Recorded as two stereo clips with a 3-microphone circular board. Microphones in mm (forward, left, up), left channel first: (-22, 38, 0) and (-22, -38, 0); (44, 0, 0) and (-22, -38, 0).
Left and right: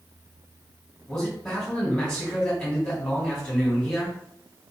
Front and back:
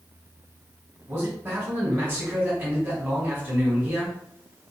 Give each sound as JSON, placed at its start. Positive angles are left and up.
{"t": 1.1, "sound": "a man speaking", "azimuth_deg": 165, "distance_m": 1.8}